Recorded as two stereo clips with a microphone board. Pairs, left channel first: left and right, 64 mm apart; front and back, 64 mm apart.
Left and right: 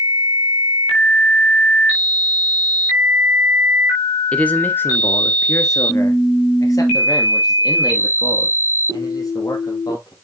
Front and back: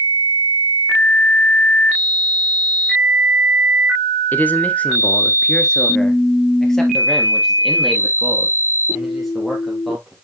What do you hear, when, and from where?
4.3 s a man speaking: 35° left, 1.2 m; by 10.1 s 90° left, 4 m